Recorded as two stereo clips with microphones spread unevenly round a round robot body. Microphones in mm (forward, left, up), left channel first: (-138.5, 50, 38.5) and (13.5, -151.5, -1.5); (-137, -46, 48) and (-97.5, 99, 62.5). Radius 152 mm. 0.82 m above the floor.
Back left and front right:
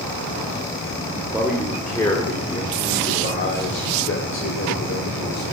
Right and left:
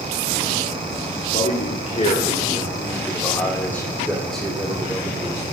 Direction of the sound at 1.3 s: 140° right.